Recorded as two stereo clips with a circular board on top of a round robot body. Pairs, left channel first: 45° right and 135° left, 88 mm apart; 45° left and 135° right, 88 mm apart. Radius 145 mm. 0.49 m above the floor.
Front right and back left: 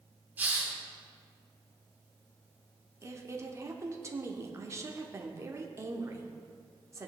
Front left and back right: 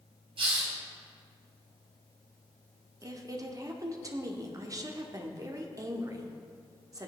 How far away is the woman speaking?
About 1.8 m.